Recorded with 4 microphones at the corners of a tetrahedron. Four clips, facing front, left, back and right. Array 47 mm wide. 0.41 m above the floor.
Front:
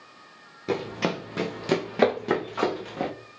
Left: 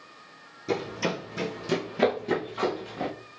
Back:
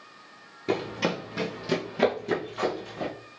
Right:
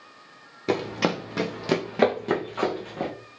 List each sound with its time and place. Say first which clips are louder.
0.7 s running footsteps: right 4 dB, even; 95° right, 1.3 m; by 3.1 s 20° right, 2 m